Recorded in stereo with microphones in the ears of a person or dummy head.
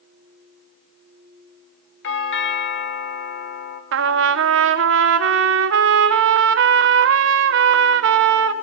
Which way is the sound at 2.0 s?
60° left (ahead or behind).